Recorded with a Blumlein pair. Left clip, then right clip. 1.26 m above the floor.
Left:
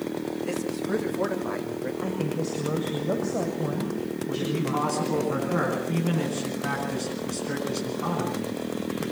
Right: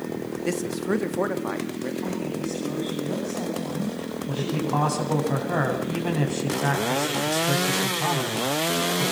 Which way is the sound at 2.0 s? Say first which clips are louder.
Left 1 dB; 60° left.